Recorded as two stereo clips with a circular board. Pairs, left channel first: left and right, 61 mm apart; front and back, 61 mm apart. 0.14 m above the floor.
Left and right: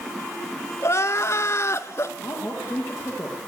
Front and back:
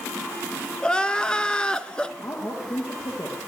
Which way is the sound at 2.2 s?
35° left.